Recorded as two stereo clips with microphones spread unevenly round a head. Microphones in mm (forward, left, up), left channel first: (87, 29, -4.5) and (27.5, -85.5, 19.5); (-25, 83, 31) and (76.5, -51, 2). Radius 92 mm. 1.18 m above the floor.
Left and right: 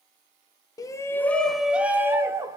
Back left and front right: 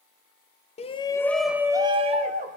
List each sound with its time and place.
0.8 s a shout: 85° left, 0.6 m; by 2.6 s 50° right, 0.9 m